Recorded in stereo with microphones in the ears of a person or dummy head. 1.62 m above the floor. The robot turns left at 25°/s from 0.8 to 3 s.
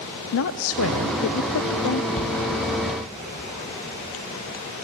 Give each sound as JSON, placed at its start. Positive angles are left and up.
{"t": 0.3, "sound": "a woman speaking", "azimuth_deg": 105, "distance_m": 0.7}
{"t": 2.2, "sound": "a shout", "side_deg": 40, "distance_m": 1.9}